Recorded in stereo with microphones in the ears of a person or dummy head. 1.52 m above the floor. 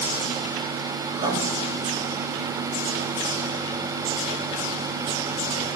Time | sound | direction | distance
1.2 | writing | 35° right (ahead or behind) | 2.5 m